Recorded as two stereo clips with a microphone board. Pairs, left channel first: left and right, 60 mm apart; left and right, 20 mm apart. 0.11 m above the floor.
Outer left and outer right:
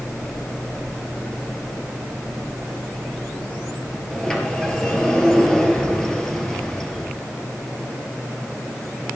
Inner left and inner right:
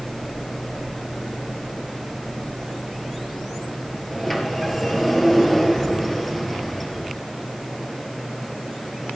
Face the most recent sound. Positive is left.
turn(degrees=10)  # may be behind; listen again after turning